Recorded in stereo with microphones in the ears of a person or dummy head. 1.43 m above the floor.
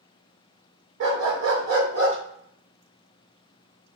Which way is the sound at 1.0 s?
60° right (ahead or behind).